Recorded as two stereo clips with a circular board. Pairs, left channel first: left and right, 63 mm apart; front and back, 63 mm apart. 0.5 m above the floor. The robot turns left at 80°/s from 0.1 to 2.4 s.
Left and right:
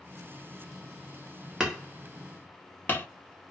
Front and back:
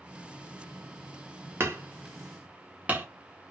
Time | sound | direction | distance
1.6 | hammering | 165° right | 0.9 m